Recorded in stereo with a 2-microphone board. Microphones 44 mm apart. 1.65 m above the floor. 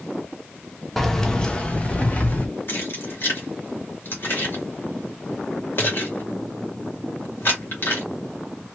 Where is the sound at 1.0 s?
5° left (ahead or behind), 0.7 m; by 2.5 s 40° left (ahead or behind), 1.3 m.